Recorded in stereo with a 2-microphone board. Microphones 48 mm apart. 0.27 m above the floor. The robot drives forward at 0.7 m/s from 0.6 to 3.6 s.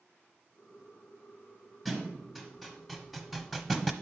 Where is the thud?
Centre (ahead or behind), 1.8 m.